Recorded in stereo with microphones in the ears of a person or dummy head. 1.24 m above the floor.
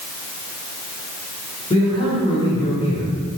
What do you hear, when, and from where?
1.7 s a man speaking: 25° left (ahead or behind), 4.5 m; by 3.4 s 30° left (ahead or behind), 3.5 m